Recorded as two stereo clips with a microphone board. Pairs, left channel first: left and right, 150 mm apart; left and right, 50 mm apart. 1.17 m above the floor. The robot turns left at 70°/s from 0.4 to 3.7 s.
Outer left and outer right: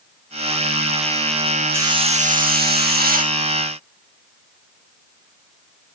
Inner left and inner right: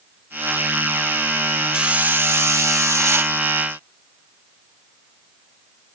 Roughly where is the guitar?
No guitar in this recording.